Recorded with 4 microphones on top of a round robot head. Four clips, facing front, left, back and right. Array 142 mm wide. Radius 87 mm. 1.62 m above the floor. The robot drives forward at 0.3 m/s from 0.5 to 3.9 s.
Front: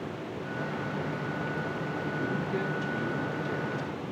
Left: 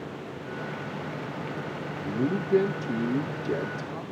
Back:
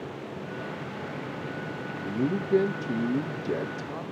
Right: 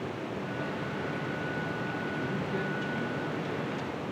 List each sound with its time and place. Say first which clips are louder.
2.0 s a man speaking: left 5 dB, back 7 dB; 140° left, 2.5 m; by 4.0 s 145° left, 3 m